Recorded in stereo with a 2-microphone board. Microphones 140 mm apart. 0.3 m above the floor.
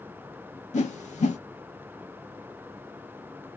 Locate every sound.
0.7 s a whoosh: 55° left (ahead or behind), 0.6 m